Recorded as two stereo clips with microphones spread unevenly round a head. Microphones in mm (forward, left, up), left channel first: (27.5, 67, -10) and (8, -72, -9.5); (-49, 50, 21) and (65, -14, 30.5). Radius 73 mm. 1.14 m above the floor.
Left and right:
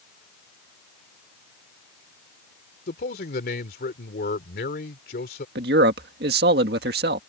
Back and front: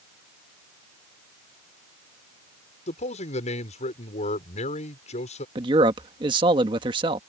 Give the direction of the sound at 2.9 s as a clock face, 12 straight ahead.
8 o'clock.